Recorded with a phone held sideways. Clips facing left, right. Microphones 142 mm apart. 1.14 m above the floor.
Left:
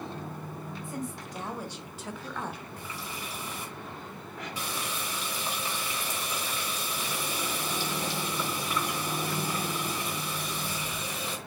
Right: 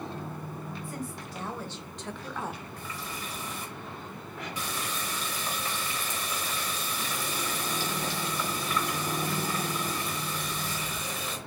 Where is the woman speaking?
25° left (ahead or behind), 1.4 m; by 2.6 s 15° right (ahead or behind), 0.6 m.